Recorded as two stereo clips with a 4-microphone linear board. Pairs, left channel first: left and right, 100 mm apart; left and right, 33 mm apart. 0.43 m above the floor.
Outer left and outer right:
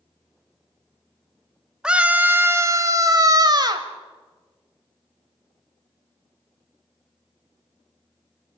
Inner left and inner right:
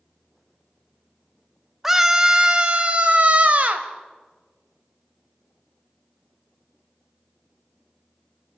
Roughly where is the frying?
No frying in this recording.